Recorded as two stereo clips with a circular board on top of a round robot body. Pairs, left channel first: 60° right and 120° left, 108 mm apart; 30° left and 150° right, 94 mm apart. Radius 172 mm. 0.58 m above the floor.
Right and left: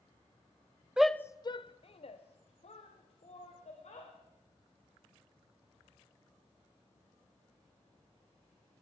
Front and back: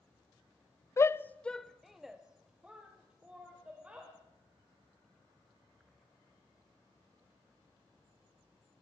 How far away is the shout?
About 0.6 m.